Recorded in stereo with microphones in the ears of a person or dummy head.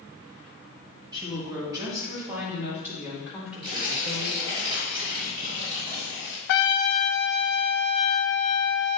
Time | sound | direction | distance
1.1 | a woman speaking | 25° right (ahead or behind) | 2 m
3.6 | tearing paper | 25° right (ahead or behind) | 3 m
6.5 | a trumpet | 65° left (ahead or behind) | 0.6 m